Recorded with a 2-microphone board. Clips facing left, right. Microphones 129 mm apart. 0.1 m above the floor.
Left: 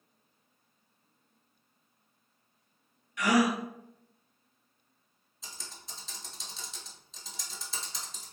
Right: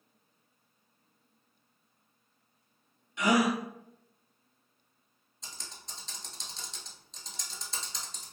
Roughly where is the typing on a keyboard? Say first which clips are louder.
Even; centre.